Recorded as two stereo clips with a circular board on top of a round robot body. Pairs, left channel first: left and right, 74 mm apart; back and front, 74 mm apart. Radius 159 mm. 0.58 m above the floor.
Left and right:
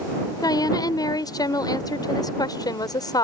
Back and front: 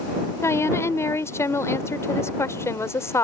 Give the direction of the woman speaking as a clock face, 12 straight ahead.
8 o'clock.